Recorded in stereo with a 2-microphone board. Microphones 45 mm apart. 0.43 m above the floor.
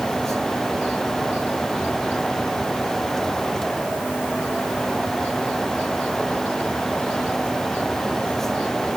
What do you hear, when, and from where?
Only background noise.